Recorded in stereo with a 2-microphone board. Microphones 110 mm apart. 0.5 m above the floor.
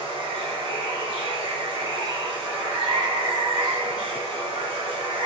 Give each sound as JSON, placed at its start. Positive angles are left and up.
{"t": 0.0, "sound": "running water", "side_deg": -55, "distance_m": 2.0}